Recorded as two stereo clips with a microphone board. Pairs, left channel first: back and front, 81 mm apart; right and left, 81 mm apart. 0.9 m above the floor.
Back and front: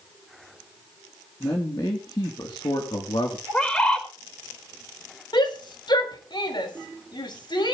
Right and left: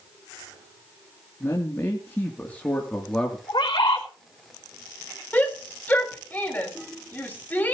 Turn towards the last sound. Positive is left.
turn(degrees=-160)